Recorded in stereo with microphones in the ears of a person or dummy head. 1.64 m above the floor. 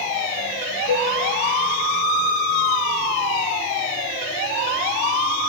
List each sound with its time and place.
0.9 s a cowbell: 75° left (ahead or behind), 0.9 m